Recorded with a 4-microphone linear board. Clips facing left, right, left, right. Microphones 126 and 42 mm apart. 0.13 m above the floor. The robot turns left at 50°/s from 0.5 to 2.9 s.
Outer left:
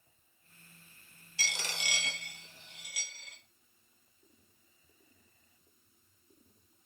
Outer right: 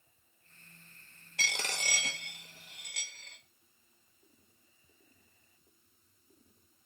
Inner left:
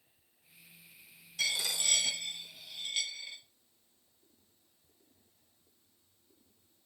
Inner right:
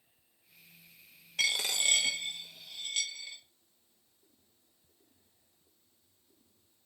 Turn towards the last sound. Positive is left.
turn(degrees=5)  # may be behind; listen again after turning